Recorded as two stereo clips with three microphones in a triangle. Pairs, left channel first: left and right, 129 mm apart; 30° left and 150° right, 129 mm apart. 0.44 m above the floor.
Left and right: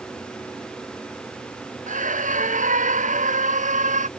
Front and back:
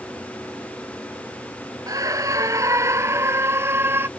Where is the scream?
85° right; by 4.1 s 75° right.